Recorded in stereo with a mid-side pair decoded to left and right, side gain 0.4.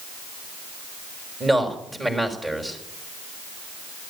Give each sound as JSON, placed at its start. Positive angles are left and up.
{"t": 1.4, "sound": "a man speaking", "azimuth_deg": -25, "distance_m": 5.5}